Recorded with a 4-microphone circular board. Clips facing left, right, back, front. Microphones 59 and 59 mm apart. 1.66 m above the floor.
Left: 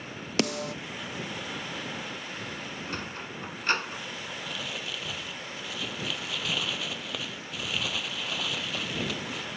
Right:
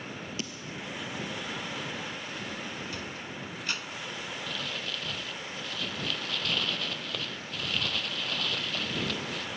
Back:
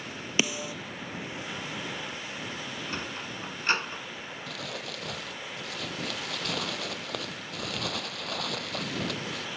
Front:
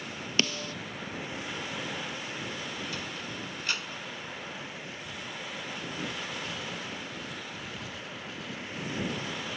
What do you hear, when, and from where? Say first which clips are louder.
0.4 s a snare drum: left 10 dB, back 1 dB; 100° left
2.9 s a sliding door: left 2 dB, back 2 dB; 130° left
4.5 s crumpling: even, back 3 dB; 170° left